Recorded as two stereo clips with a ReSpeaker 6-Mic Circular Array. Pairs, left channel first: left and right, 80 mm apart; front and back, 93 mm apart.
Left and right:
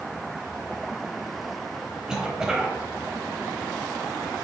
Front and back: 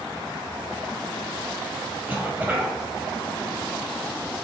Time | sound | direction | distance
2.1 | a cough | 155° right | 0.9 m